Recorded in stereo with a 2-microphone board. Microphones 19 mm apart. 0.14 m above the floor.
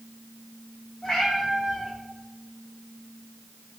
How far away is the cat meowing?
About 1.9 m.